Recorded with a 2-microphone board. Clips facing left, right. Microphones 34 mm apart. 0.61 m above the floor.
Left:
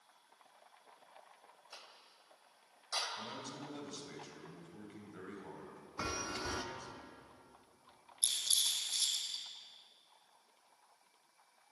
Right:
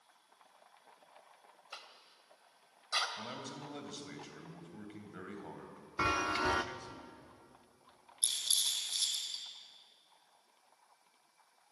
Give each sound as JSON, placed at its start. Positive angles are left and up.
{"t": 1.7, "sound": "a cough", "side_deg": -40, "distance_m": 2.5}
{"t": 3.2, "sound": "a man speaking", "side_deg": -20, "distance_m": 3.0}
{"t": 6.0, "sound": "a chime", "side_deg": -45, "distance_m": 0.8}
{"t": 8.2, "sound": "a rattle", "side_deg": -15, "distance_m": 4.0}